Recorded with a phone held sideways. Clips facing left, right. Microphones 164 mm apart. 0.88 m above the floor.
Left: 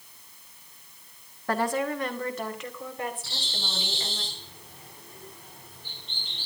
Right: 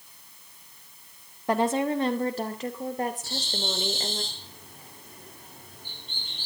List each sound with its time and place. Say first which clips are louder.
1.5 s a woman speaking: right 3 dB; 20° right (ahead or behind), 1.6 m; by 4.2 s 45° right (ahead or behind), 3.5 m
3.2 s a bird: right 7 dB; 45° right (ahead or behind), 5 m